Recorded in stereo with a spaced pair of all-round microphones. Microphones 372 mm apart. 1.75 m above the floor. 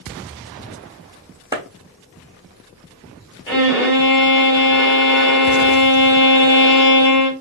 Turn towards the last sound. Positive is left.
turn(degrees=30)  # may be behind; listen again after turning